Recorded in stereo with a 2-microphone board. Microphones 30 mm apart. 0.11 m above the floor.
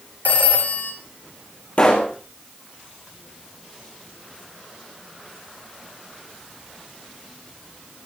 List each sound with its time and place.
0.2 s a phone ringing: 65° left (ahead or behind), 4 m
1.8 s a pop: 45° left (ahead or behind), 3.5 m